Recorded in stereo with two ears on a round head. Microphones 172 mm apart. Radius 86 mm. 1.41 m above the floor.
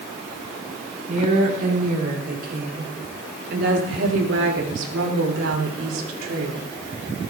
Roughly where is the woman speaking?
Right.